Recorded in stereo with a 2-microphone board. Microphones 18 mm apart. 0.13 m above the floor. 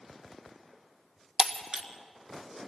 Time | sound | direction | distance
1.4 | breaking glass | 55° right (ahead or behind) | 1.4 m